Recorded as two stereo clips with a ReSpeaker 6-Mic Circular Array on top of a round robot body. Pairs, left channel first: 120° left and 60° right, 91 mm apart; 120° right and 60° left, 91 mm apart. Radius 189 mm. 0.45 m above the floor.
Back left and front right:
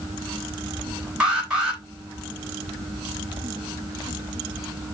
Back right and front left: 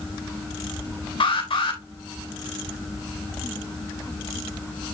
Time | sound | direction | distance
1.2 | an alarm | 140° right | 4.5 m